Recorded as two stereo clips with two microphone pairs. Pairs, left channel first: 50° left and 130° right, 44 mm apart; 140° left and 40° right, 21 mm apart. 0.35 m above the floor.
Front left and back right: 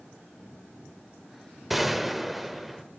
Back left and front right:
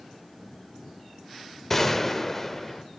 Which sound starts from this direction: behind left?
A gunshot, at 1.7 s.